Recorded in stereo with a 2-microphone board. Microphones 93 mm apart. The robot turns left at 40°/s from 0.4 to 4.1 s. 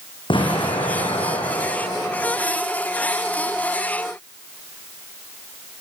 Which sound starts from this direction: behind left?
An explosion, at 0.3 s.